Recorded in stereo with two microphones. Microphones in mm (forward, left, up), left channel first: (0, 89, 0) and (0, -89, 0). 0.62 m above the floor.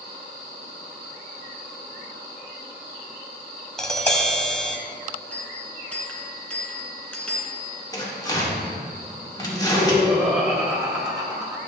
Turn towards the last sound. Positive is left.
turn(degrees=-5)  # may be behind; listen again after turning